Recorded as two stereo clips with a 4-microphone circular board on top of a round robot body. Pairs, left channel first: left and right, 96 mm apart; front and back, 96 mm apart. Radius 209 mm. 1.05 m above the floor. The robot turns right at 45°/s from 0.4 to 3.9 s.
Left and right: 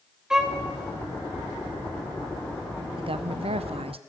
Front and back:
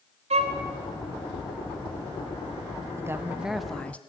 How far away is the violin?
About 1.0 m.